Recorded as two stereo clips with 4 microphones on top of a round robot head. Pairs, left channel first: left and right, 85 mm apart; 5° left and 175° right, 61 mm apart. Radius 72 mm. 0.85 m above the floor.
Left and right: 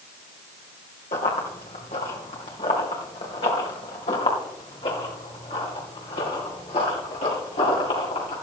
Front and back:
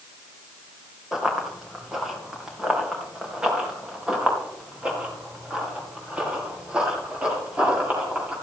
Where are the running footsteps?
100° left, 3 m; by 8.3 s 115° left, 7.5 m.